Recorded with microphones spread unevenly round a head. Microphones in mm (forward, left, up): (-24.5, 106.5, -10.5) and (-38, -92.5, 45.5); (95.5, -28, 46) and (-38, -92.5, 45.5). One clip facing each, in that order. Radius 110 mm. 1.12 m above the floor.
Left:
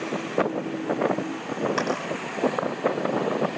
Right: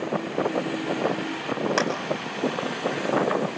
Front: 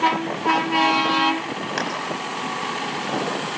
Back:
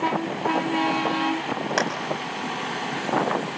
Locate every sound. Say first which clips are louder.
1.8 s a clap: right 3 dB, back 3 dB; 115° right, 7 m